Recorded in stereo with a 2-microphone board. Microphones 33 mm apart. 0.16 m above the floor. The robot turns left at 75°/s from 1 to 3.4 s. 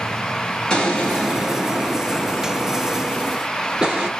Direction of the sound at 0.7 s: 30° left.